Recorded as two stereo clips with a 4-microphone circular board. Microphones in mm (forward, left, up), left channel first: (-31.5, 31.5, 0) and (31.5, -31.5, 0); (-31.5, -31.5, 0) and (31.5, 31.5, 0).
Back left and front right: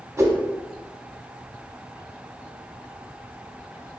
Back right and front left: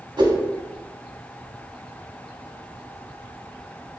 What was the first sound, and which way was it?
A whoosh, 10° left.